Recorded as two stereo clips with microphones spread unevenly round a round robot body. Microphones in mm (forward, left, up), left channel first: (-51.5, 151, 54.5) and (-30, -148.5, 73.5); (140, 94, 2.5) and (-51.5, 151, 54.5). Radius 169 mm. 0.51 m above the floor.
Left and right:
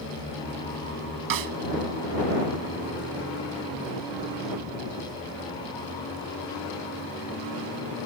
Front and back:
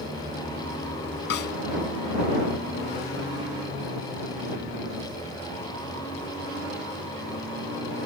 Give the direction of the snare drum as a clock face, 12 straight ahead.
2 o'clock.